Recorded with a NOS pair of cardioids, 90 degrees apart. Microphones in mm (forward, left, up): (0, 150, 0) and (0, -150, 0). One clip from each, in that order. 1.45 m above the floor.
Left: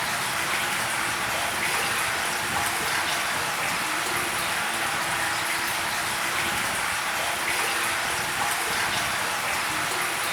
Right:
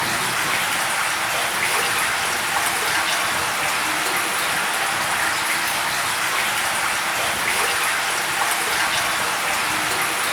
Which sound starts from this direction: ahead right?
Running water, at 0.0 s.